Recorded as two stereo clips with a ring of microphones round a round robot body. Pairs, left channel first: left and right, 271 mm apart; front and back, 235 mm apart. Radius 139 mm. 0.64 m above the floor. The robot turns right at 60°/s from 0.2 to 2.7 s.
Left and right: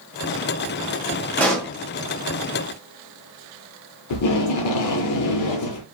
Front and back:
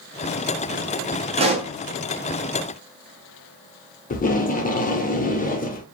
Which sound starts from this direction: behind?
A pop, at 1.4 s.